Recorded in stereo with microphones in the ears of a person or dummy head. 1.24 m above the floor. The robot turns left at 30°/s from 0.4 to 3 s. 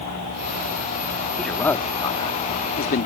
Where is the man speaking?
Straight behind; by 3.1 s 130° left.